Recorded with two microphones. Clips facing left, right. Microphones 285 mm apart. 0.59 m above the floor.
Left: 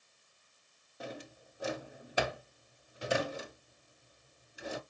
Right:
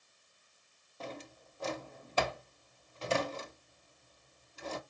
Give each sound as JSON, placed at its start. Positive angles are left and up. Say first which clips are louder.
{"t": 1.0, "sound": "a drawer", "louder": "even", "side_deg": 15, "distance_m": 0.7}